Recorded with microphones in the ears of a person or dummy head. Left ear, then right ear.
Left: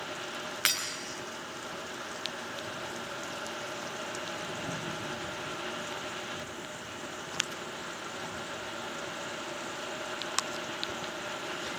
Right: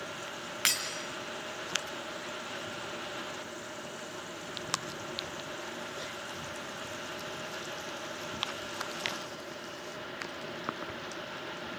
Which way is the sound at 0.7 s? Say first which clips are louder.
Left 1 dB; centre (ahead or behind).